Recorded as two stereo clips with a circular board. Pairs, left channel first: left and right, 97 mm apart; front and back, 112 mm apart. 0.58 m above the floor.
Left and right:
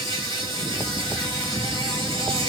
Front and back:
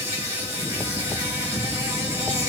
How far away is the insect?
About 4.5 m.